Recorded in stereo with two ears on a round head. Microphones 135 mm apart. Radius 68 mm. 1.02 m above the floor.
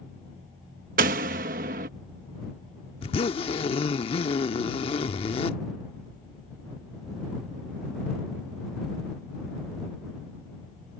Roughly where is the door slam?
Right.